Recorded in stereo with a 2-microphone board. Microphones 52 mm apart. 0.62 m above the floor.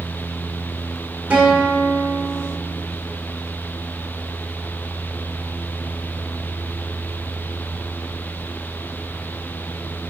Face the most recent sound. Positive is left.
turn(degrees=-25)  # may be behind; listen again after turning